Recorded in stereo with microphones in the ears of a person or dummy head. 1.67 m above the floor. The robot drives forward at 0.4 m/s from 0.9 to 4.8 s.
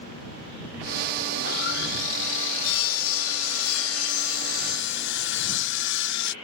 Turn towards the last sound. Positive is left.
turn(degrees=70)  # may be behind; listen again after turning